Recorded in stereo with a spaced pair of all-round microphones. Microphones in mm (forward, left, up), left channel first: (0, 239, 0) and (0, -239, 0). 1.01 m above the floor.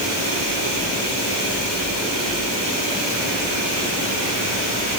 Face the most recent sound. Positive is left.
No sound to turn to.